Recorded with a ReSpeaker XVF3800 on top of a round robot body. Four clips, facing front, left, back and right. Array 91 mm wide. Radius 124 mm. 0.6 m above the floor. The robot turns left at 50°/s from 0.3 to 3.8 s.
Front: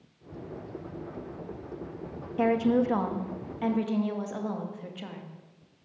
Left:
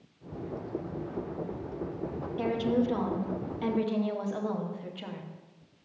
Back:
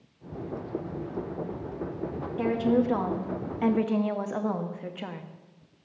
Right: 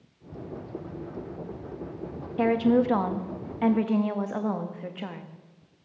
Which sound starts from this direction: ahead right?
A woman speaking, at 2.4 s.